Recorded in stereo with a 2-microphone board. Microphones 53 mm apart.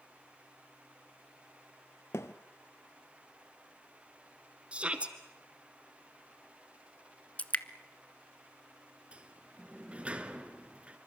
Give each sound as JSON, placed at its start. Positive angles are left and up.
{"t": 2.1, "sound": "a thud", "side_deg": 60, "distance_m": 1.2}
{"t": 4.7, "sound": "a shout", "side_deg": -25, "distance_m": 1.8}
{"t": 7.4, "sound": "dripping", "side_deg": 30, "distance_m": 0.7}
{"t": 9.1, "sound": "a sliding door", "side_deg": -25, "distance_m": 1.5}